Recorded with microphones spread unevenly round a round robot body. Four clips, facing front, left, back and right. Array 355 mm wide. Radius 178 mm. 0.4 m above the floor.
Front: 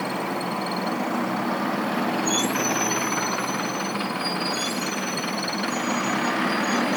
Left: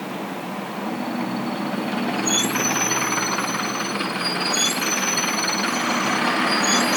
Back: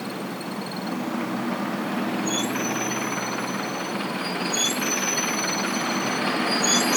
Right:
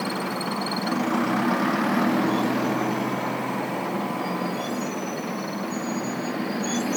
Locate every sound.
Only background noise.